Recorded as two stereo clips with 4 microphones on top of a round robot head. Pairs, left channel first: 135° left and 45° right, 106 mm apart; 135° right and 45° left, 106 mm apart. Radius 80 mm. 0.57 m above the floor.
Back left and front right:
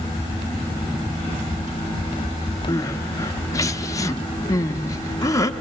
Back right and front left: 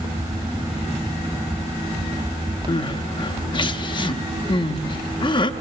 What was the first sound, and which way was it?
Crying, 170° right.